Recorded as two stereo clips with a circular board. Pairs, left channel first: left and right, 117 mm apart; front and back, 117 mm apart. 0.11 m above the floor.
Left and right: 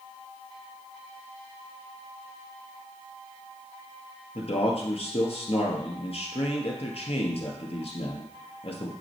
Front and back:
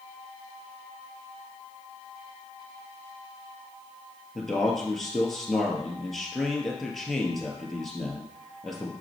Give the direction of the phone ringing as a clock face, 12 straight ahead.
No phone ringing in this recording.